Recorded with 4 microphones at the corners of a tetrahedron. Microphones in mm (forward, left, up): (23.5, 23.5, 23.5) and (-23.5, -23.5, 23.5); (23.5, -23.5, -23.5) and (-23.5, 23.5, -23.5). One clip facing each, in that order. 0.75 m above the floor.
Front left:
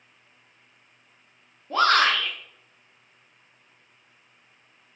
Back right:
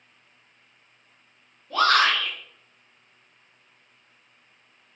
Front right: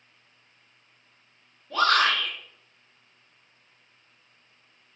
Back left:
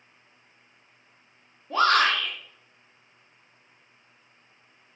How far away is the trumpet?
I don't hear a trumpet.